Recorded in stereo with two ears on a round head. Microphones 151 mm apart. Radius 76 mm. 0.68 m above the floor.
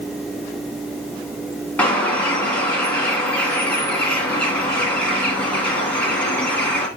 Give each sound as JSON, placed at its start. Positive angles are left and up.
{"t": 1.8, "sound": "a bird", "side_deg": 10, "distance_m": 2.0}